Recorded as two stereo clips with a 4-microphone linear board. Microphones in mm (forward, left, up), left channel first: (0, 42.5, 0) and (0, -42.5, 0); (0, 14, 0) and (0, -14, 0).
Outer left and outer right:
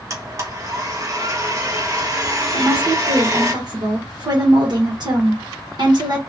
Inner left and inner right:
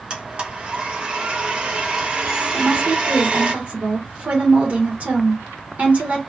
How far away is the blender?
About 0.8 m.